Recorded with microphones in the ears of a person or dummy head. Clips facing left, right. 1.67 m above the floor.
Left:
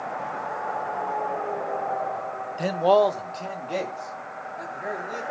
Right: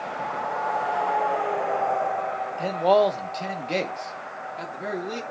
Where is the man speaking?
25° left (ahead or behind), 1.0 m; by 5.2 s 50° right (ahead or behind), 3 m.